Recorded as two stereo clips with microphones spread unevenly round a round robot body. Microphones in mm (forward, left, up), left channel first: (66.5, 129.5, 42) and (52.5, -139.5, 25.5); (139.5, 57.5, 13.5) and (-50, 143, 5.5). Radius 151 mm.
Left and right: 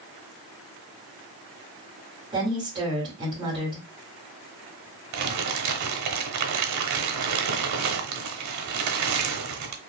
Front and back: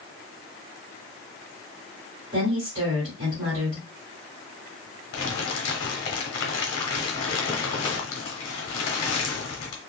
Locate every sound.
2.3 s a woman speaking: 150° right, 1.7 m
5.1 s crumpling: 70° right, 0.9 m